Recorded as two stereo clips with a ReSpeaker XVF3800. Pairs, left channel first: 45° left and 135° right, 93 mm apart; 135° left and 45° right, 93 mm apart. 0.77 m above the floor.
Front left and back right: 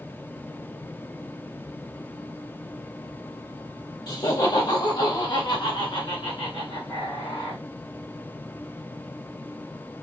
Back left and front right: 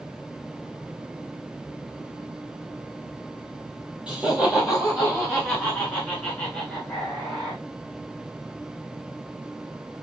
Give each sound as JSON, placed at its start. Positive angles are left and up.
{"t": 4.1, "sound": "laughter", "azimuth_deg": 30, "distance_m": 1.0}